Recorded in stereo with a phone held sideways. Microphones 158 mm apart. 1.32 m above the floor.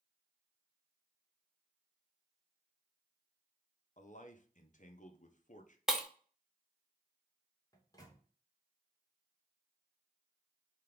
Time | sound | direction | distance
4.0 | a man speaking | 50° left (ahead or behind) | 0.7 m
5.9 | breaking glass | 5° right (ahead or behind) | 0.8 m
7.7 | a microwave | 25° left (ahead or behind) | 1.0 m